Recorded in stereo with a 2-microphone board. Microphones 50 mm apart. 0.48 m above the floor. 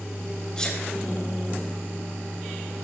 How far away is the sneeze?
About 1.9 m.